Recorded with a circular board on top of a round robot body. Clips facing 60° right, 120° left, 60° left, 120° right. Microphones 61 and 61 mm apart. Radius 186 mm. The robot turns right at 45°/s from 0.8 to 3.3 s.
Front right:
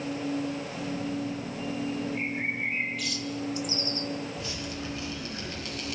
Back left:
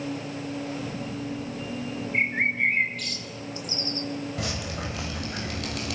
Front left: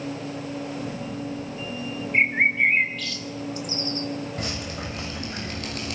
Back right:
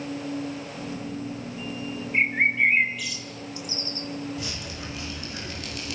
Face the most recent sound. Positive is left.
turn(degrees=105)